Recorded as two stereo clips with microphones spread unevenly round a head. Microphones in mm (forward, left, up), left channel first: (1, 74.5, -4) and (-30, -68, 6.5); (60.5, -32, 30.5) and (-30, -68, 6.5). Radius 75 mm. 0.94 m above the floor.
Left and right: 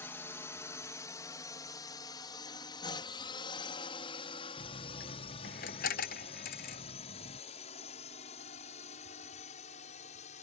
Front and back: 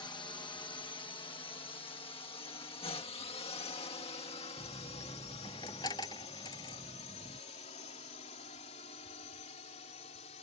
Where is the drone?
15° left; by 10.4 s 35° left.